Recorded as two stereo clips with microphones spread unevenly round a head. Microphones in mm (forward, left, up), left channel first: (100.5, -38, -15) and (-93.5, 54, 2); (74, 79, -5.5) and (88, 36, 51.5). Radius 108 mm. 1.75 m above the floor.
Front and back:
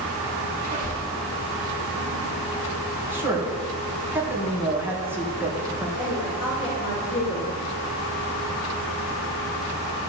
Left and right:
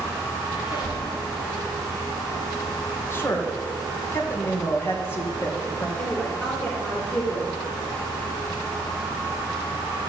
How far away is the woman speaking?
About 4 m.